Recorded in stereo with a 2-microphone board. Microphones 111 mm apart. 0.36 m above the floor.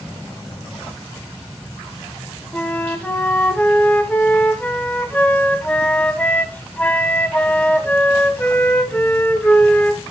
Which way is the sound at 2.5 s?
15° left (ahead or behind).